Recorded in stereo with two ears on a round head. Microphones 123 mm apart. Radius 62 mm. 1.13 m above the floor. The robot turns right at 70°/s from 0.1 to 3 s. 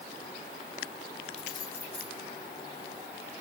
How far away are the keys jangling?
About 1.1 m.